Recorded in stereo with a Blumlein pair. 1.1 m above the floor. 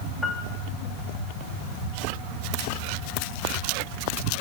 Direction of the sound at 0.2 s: 10° left.